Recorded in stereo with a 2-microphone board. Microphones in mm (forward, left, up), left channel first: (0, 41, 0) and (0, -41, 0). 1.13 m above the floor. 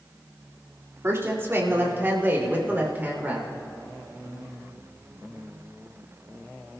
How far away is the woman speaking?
About 2 m.